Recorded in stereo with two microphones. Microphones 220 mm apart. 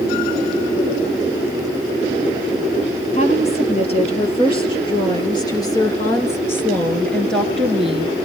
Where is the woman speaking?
30° left (ahead or behind), 4.5 m; by 8.2 s 5° right (ahead or behind), 3 m.